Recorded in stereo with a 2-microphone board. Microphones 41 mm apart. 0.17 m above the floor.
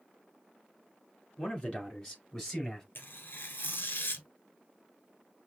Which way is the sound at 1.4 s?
25° left (ahead or behind).